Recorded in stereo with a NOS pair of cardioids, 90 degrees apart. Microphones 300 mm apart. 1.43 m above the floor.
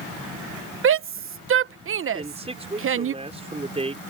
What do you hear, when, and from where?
0.8 s a shout: 45° right
2.1 s a man speaking: 20° right